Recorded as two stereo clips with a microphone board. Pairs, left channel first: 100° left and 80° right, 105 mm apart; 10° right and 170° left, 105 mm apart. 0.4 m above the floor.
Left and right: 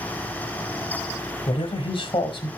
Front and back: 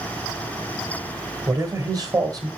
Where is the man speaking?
125° left, 1.5 m.